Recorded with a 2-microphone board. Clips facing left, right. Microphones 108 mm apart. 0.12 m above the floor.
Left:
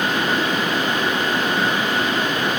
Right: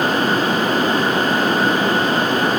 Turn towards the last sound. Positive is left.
No sound to turn to.